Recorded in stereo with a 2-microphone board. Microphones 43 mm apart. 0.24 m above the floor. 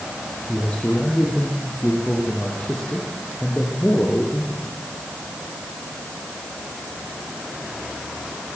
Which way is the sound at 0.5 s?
30° left (ahead or behind).